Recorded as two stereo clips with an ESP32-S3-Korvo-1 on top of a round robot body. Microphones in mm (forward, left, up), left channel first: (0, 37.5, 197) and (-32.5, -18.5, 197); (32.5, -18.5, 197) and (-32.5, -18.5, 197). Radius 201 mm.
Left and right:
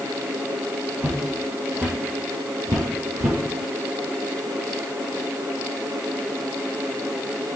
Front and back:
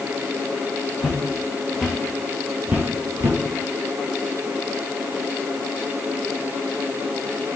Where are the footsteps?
55° right, 2.5 m; by 3.4 s 155° right, 1.5 m.